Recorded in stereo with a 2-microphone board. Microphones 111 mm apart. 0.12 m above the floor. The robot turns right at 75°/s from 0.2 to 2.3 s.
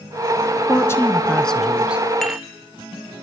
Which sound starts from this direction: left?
A woman speaking, at 0.7 s.